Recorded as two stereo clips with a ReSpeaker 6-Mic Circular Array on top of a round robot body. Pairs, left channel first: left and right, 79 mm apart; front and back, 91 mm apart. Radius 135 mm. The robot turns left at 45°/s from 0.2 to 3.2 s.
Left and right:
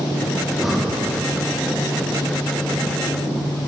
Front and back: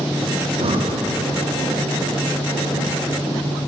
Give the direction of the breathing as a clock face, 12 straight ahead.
6 o'clock.